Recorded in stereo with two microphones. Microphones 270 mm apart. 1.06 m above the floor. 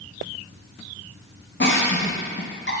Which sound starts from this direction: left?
A giggle, at 1.6 s.